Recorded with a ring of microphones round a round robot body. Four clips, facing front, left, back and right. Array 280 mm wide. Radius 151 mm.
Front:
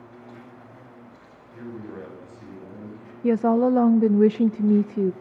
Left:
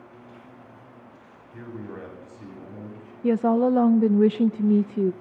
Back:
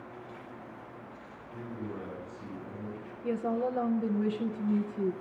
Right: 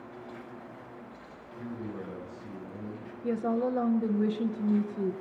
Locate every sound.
0.0 s an insect: 40° right, 9.5 m
1.5 s a man speaking: 65° left, 8.5 m
3.2 s a woman speaking: 35° left, 0.5 m